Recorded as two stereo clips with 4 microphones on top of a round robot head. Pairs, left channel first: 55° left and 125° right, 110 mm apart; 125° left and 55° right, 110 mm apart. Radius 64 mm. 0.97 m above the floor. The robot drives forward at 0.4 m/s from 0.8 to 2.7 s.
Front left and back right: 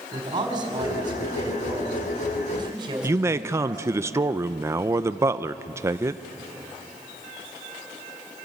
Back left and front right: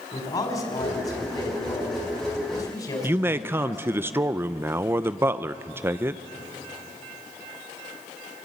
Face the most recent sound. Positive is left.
turn(degrees=-95)